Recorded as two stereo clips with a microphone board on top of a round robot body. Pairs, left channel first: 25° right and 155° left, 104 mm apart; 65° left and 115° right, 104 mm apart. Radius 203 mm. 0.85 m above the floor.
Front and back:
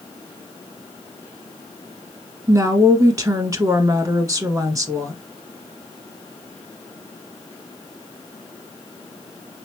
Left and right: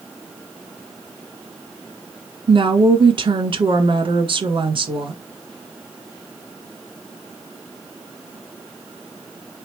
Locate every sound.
2.5 s a woman speaking: 150° right, 1.5 m